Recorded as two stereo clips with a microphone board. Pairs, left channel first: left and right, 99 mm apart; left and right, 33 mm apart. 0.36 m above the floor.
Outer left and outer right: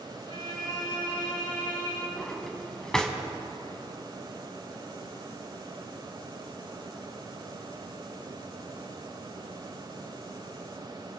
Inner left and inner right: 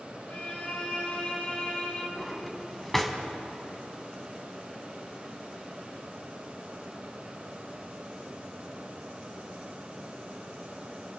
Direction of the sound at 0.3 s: 55° left (ahead or behind).